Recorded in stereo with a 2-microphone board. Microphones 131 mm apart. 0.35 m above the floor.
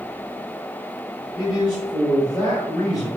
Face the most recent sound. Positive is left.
turn(degrees=30)  # may be behind; listen again after turning